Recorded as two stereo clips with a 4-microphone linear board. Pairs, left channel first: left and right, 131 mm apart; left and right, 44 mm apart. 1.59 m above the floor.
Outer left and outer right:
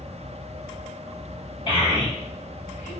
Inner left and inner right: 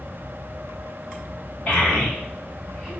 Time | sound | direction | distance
1.7 | a child speaking | 35° left (ahead or behind) | 1.6 m